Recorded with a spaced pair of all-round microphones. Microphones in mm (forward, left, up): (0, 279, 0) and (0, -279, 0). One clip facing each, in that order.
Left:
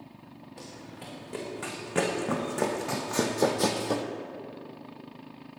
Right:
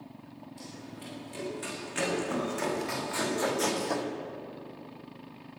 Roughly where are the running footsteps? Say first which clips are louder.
Even; left.